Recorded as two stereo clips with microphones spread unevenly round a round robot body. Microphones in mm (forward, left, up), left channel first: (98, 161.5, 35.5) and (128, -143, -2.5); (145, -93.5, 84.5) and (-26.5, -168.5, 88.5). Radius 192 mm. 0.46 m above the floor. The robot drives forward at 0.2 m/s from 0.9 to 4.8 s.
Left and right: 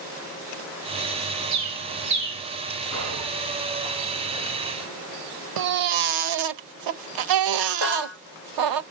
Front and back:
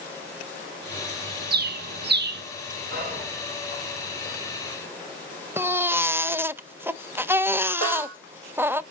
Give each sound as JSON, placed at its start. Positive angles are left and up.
{"t": 1.5, "sound": "a bird", "azimuth_deg": -130, "distance_m": 1.1}
{"t": 2.9, "sound": "whispering", "azimuth_deg": -120, "distance_m": 4.0}
{"t": 5.6, "sound": "a baby crying", "azimuth_deg": -75, "distance_m": 0.7}
{"t": 7.8, "sound": "a snare drum", "azimuth_deg": -115, "distance_m": 5.5}